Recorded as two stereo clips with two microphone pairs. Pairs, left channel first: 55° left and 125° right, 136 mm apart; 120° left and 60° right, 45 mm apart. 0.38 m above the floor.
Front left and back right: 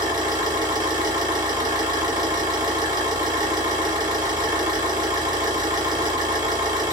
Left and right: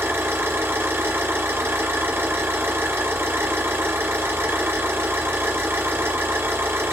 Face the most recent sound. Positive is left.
turn(degrees=-70)